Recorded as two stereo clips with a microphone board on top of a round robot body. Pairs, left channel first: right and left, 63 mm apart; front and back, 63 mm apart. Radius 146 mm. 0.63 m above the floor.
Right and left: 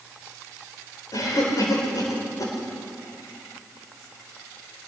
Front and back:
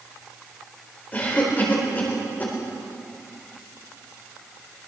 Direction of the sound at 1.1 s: 65° right.